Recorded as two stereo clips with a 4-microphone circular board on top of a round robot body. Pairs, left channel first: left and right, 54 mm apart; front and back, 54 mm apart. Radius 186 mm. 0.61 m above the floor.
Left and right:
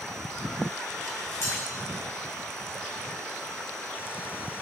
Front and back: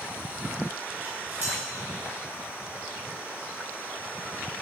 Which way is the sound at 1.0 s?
130° left.